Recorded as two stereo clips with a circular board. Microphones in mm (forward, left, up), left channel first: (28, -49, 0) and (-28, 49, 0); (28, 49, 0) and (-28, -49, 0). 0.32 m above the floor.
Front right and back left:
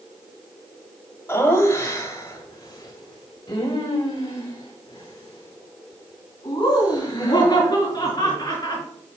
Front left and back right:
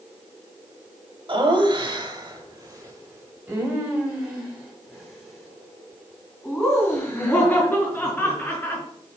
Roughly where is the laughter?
Behind right.